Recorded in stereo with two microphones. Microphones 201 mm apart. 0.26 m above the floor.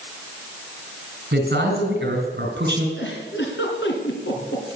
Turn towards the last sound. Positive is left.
turn(degrees=70)  # may be behind; listen again after turning